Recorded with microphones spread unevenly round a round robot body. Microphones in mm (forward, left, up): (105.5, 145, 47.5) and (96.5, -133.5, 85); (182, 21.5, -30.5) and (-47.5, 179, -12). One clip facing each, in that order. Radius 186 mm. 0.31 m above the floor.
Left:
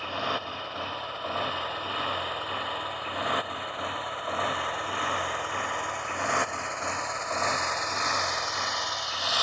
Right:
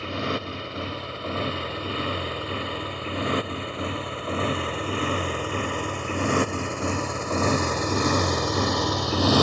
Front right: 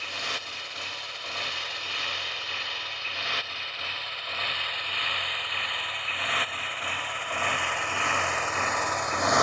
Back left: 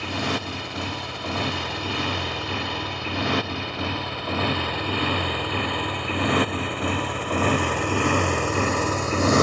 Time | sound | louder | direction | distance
0.0 | a motorcycle | right 6 dB, back left 15 dB | 165° right | ?